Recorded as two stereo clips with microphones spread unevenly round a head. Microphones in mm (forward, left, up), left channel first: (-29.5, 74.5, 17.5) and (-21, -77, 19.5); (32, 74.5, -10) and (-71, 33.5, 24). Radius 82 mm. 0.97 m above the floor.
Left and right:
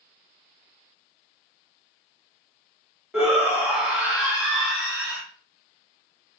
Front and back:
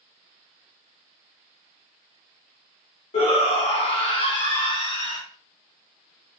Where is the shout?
Straight ahead, 1.2 m.